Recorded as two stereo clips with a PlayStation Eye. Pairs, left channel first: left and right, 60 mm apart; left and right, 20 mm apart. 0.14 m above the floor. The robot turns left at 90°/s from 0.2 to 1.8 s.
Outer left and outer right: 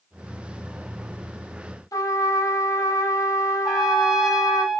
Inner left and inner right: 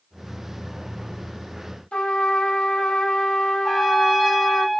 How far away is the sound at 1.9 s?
About 4 m.